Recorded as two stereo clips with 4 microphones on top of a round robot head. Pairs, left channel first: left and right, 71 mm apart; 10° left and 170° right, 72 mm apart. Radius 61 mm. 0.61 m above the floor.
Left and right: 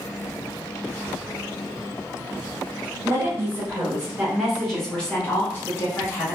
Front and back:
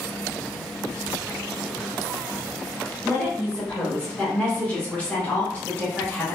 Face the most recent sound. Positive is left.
turn(degrees=75)